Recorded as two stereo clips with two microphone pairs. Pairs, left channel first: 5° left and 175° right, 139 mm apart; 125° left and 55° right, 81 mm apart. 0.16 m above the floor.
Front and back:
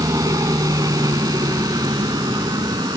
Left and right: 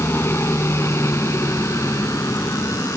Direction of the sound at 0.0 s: 145° left.